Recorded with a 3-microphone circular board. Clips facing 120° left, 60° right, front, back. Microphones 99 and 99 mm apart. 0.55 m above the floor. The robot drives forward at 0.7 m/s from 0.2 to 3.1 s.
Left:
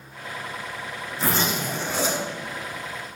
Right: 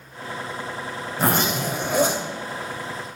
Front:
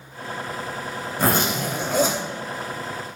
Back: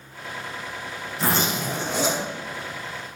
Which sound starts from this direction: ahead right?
A zipper, at 1.2 s.